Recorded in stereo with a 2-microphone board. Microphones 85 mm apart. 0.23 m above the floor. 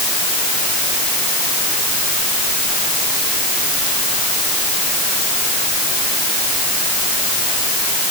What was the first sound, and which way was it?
Only background noise.